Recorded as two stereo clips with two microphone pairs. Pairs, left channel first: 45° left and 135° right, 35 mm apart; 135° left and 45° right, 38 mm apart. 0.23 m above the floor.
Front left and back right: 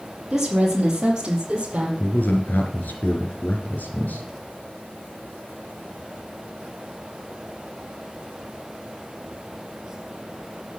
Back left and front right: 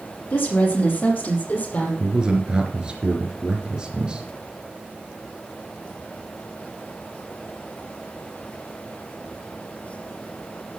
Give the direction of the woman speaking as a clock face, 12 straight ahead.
7 o'clock.